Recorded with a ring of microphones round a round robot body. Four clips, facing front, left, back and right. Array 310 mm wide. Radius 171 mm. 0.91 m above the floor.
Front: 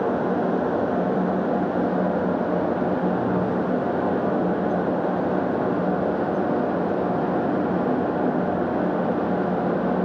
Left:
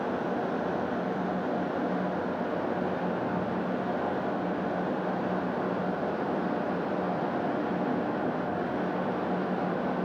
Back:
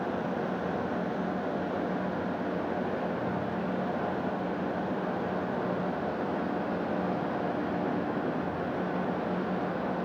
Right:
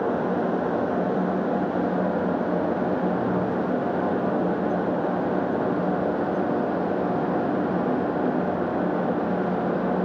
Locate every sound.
Only background noise.